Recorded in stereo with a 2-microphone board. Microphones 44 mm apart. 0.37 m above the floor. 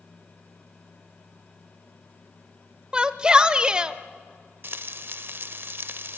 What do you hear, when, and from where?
2.9 s a shout: 20° right (ahead or behind), 0.9 m
4.6 s frying: 55° right (ahead or behind), 0.5 m